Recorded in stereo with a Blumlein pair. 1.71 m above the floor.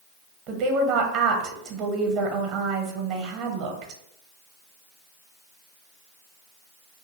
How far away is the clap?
No clap in this recording.